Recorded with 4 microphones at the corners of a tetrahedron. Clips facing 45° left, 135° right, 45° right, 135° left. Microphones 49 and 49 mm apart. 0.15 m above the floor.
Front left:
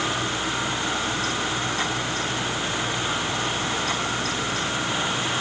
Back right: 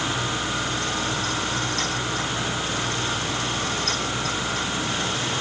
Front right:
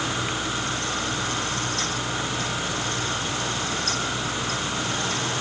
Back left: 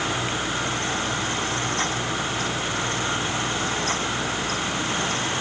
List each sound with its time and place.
Only background noise.